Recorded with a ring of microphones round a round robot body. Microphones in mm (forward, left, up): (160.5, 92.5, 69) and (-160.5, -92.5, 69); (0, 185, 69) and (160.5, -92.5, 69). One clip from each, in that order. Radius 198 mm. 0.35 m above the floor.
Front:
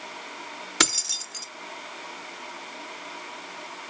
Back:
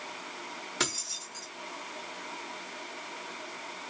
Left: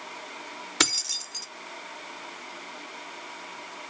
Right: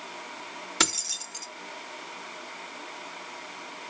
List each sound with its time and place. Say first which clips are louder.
0.8 s keys jangling: front 9 dB, left 2 dB; 55° left, 0.8 m